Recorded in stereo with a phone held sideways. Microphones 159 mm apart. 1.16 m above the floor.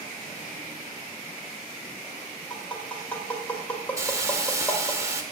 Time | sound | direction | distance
2.5 | tapping | 5° left (ahead or behind) | 1.9 m
4.0 | a hiss | 20° right (ahead or behind) | 1.1 m